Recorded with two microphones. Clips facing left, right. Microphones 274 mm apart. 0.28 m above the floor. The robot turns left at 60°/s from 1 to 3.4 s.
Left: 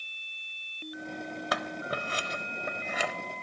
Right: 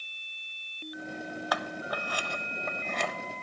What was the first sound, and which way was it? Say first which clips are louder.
Scissors: left 1 dB; 25° left (ahead or behind).